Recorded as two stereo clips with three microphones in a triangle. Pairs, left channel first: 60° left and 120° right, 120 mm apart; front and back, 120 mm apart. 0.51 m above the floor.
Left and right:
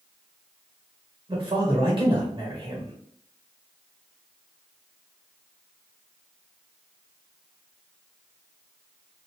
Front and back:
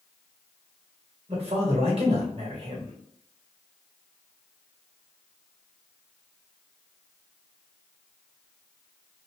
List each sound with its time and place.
1.3 s a man speaking: 160° right, 1.5 m